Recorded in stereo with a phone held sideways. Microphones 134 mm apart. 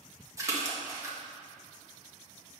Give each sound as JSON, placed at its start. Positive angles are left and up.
{"t": 0.4, "sound": "a splash", "side_deg": -25, "distance_m": 1.2}